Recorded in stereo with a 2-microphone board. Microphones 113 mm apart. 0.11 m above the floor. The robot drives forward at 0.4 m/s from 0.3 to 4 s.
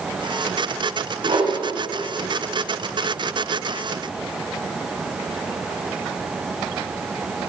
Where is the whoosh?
70° right (ahead or behind), 4 m.